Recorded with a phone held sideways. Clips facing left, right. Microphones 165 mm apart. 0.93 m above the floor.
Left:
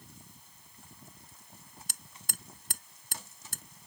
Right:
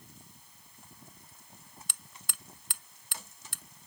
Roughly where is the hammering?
Left.